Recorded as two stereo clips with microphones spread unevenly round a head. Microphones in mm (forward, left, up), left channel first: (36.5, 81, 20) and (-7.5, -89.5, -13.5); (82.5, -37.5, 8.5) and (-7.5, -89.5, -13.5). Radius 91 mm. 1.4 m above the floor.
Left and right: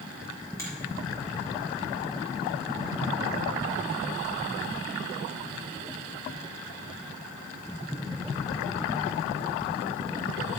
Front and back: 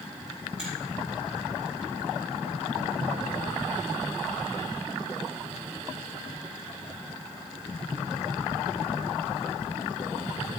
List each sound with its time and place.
0.6 s a finger snap: 155° left, 4 m